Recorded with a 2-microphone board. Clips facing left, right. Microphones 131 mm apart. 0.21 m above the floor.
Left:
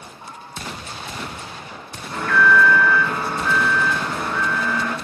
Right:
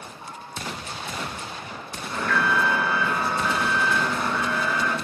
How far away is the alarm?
About 2.5 m.